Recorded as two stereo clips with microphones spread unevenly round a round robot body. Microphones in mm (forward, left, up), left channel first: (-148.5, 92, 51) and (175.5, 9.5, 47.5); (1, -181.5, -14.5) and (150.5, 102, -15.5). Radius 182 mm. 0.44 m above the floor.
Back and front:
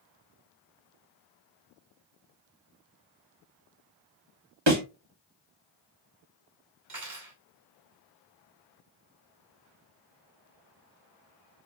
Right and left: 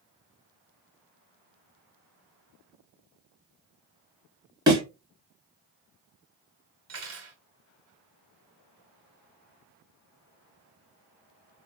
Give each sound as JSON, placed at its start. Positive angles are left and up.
{"t": 4.7, "sound": "a thud", "azimuth_deg": -15, "distance_m": 1.8}
{"t": 6.9, "sound": "cutlery clinking", "azimuth_deg": 20, "distance_m": 1.8}